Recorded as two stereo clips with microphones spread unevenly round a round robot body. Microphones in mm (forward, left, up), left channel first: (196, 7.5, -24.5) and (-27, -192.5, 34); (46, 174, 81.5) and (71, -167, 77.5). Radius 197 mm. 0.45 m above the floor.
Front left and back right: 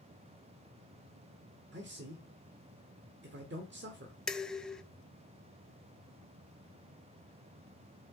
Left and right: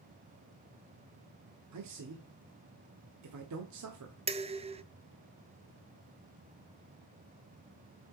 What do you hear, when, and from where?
1.7 s a man speaking: 85° right, 1.3 m
4.3 s dishes clattering: 25° right, 0.6 m